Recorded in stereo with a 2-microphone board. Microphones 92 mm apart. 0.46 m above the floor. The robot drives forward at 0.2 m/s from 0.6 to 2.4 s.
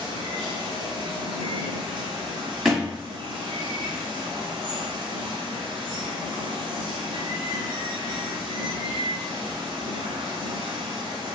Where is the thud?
5° right (ahead or behind), 1.0 m.